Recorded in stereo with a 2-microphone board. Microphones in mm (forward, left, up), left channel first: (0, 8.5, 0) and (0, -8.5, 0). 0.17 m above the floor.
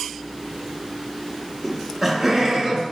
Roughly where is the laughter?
Centre.